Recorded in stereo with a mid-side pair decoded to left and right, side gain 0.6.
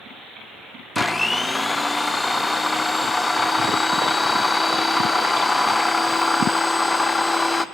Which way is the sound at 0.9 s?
15° left.